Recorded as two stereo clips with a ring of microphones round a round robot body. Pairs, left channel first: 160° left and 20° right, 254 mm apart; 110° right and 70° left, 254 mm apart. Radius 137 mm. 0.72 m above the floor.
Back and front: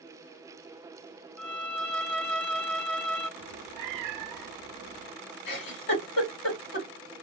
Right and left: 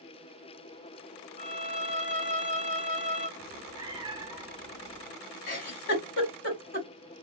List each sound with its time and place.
1.4 s a violin: 120° right, 1.1 m
3.4 s a cat meowing: 10° right, 0.6 m
5.5 s a giggle: 160° right, 1.8 m